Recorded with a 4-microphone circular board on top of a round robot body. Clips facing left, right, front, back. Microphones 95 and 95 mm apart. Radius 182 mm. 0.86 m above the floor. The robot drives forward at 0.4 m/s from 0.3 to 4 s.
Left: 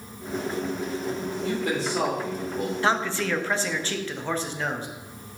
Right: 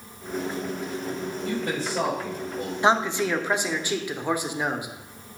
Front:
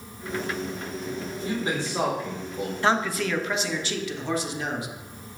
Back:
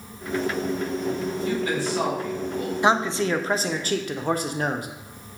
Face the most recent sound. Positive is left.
turn(degrees=-165)